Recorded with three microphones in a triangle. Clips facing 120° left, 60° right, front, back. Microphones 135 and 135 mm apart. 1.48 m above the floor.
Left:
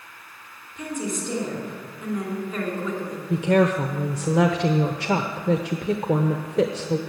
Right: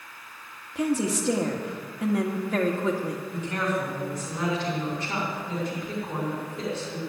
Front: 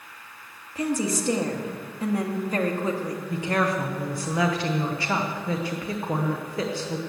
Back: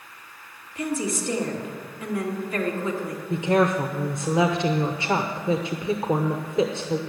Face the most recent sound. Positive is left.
turn(degrees=110)